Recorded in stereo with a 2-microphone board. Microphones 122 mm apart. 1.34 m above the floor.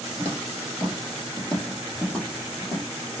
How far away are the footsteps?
About 1.8 m.